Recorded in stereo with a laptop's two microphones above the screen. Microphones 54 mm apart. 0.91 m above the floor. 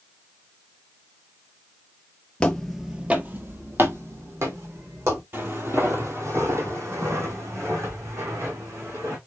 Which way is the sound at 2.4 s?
20° left (ahead or behind).